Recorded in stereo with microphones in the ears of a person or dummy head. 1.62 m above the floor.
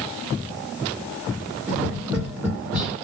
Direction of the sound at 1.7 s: 10° right (ahead or behind).